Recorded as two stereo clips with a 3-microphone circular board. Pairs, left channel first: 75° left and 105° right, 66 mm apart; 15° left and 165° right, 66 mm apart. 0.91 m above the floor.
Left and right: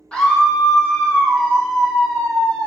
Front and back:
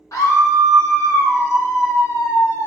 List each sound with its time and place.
0.1 s a scream: straight ahead, 1.0 m